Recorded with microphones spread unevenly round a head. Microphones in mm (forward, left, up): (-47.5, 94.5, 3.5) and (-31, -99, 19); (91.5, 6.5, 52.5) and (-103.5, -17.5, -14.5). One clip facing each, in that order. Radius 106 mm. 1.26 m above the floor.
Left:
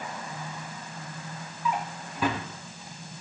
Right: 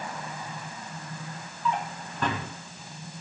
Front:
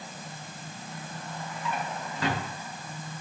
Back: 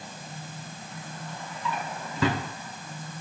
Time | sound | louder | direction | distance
1.6 | a drawer | right 1 dB, back 1 dB | straight behind | 0.9 m